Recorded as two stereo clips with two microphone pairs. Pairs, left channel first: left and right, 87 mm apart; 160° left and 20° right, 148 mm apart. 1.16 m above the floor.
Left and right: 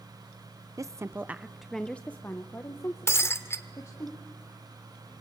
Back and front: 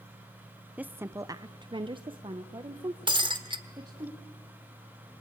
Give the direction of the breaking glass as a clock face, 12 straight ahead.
11 o'clock.